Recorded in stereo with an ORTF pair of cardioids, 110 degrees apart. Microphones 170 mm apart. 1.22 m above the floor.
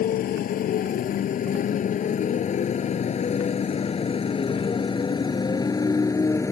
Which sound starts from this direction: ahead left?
A motorcycle, at 0.0 s.